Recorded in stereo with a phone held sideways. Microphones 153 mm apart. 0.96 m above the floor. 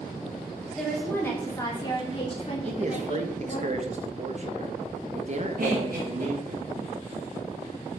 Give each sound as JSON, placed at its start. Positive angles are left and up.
{"t": 0.7, "sound": "a woman speaking", "side_deg": 5, "distance_m": 2.5}
{"t": 2.7, "sound": "a man speaking", "side_deg": -50, "distance_m": 1.2}
{"t": 5.6, "sound": "laughter", "side_deg": -70, "distance_m": 1.4}